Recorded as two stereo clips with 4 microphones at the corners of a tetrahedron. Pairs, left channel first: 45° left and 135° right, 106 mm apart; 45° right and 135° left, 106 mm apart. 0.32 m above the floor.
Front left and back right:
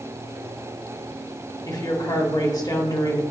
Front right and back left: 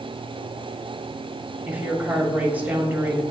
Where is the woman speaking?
70° left, 1.3 m.